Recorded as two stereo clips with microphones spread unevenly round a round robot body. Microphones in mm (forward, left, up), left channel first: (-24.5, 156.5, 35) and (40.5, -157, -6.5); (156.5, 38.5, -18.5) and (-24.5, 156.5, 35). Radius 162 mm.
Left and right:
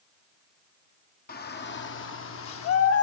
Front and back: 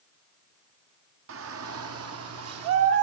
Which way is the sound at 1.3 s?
165° left.